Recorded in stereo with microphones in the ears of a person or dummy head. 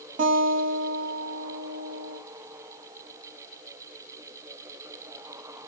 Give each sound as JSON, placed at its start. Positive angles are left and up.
{"t": 0.2, "sound": "a guitar", "side_deg": -50, "distance_m": 3.0}